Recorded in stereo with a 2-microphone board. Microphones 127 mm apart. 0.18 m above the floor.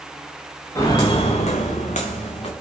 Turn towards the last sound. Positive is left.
turn(degrees=55)  # may be behind; listen again after turning